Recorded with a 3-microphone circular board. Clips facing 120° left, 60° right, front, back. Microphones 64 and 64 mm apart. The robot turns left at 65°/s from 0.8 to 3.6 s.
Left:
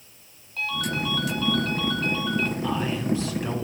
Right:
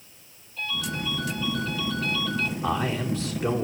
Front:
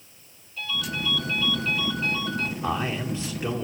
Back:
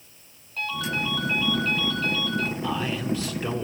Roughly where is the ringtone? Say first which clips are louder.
Left 3 dB, back 3 dB; behind left.